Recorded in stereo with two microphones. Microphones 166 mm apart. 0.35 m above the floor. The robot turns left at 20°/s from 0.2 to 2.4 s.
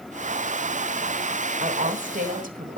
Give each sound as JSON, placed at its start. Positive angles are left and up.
{"t": 1.6, "sound": "a woman speaking", "side_deg": -55, "distance_m": 1.9}